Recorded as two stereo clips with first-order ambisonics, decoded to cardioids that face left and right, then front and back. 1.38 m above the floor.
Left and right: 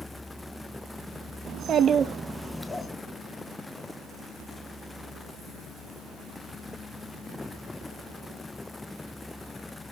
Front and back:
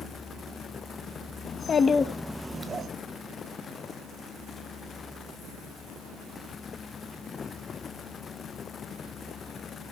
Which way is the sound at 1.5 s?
50° right.